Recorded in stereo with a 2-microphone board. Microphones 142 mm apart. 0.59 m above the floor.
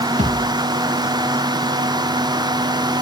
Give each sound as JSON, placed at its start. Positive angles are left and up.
{"t": 0.2, "sound": "a thud", "side_deg": -60, "distance_m": 7.5}